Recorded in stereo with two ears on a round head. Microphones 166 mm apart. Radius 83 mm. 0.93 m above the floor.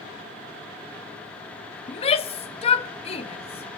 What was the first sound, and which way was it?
A shout, 30° left (ahead or behind).